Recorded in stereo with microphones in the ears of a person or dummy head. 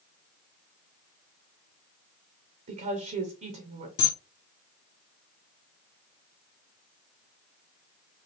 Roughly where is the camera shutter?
Left.